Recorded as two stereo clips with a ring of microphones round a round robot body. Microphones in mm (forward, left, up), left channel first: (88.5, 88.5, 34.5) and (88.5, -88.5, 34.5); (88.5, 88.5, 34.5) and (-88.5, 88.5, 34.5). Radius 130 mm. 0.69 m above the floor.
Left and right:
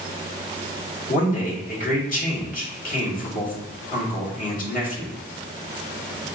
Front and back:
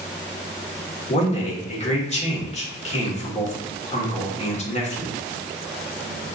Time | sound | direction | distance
1.1 | a man speaking | 50° left | 1.6 m